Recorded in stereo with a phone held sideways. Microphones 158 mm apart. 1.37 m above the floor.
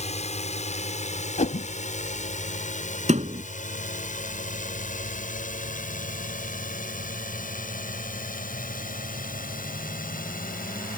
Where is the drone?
50° left (ahead or behind); by 11.0 s 70° left (ahead or behind).